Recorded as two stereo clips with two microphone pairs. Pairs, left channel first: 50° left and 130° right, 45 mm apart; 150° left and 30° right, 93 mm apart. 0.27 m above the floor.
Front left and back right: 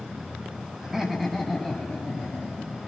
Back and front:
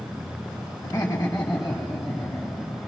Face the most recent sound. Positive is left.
turn(degrees=75)